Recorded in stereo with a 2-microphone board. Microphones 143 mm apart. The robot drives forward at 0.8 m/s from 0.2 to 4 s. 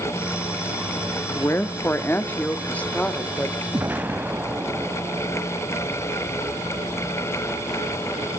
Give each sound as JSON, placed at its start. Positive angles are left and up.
{"t": 1.4, "sound": "a woman speaking", "side_deg": 20, "distance_m": 1.0}
{"t": 3.7, "sound": "an explosion", "side_deg": -15, "distance_m": 0.6}